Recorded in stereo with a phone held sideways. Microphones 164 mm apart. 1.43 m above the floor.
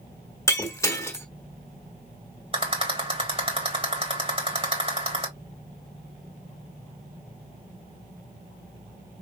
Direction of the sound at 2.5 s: 35° right (ahead or behind).